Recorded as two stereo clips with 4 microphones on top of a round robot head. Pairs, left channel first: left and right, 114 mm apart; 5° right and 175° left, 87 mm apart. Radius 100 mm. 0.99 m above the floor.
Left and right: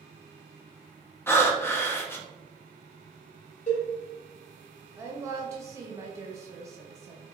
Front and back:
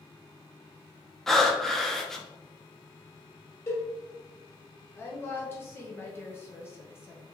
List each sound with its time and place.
1.3 s breathing: 70° left, 0.7 m
3.7 s a cowbell: 50° left, 1.3 m
5.0 s a woman speaking: 45° right, 0.8 m